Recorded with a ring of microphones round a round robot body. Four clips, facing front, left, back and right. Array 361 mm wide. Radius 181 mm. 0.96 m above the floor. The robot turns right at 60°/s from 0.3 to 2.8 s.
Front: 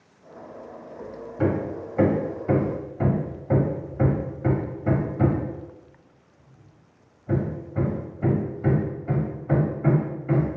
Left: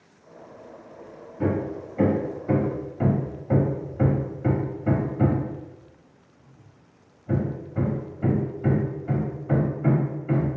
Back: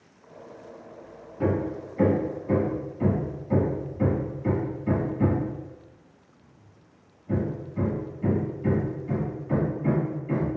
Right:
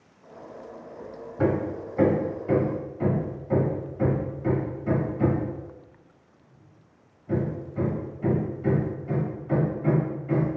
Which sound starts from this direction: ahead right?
Hammering, at 1.4 s.